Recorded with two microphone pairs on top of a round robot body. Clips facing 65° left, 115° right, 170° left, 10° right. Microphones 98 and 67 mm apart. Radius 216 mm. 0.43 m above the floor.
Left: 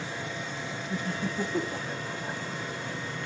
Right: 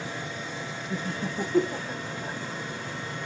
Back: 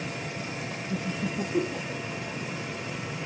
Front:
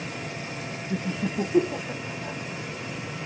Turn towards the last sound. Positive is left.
turn(degrees=-40)